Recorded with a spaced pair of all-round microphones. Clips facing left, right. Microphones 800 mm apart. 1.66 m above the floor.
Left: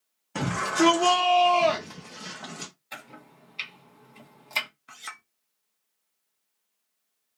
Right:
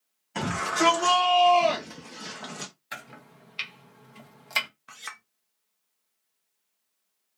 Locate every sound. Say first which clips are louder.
0.3 s a shout: left 4 dB; 65° left (ahead or behind), 1.8 m; by 2.7 s 30° right (ahead or behind), 0.6 m
2.9 s chopping: even; 50° right (ahead or behind), 0.9 m
4.9 s a clink: even; 15° right (ahead or behind), 0.5 m